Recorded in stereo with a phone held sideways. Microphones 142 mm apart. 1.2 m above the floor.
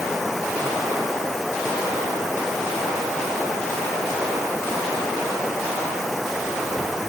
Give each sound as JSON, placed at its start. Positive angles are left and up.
{"t": 0.0, "sound": "running water", "side_deg": 0}